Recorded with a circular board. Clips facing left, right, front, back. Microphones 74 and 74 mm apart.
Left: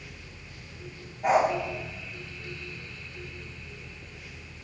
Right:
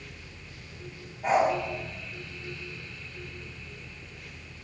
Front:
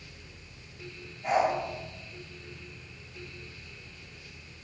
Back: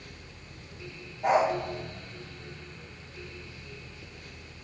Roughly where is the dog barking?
Behind.